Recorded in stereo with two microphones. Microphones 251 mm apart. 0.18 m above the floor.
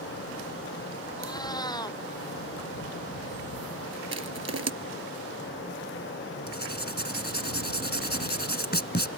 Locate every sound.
1.2 s a cat meowing: 15° left (ahead or behind)
4.1 s crushing: 75° right (ahead or behind)
6.5 s writing: 40° left (ahead or behind)